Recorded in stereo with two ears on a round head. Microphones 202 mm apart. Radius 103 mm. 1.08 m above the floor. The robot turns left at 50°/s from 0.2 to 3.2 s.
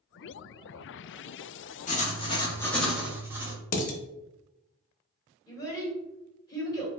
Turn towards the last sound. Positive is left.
turn(degrees=15)  # may be behind; listen again after turning